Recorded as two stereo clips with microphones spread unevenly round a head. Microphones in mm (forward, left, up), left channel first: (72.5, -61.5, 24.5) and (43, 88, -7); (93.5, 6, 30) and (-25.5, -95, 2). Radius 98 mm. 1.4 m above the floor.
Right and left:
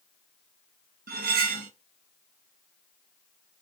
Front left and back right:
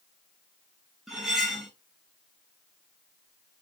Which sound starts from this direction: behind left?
Cutlery clinking, at 1.1 s.